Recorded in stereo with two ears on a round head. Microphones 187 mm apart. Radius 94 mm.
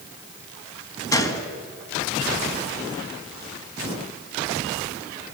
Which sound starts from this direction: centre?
A gunshot, at 1.1 s.